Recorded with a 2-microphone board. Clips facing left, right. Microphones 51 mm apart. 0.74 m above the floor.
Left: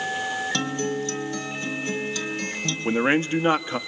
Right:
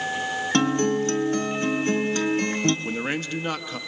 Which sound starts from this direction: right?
A guitar, at 0.5 s.